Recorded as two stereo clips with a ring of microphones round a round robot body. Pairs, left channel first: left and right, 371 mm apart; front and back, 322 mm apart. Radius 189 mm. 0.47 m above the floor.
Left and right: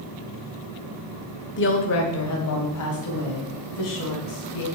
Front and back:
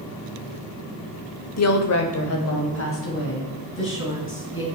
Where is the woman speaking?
30° left, 1.3 m; by 4.6 s 55° left, 4.5 m.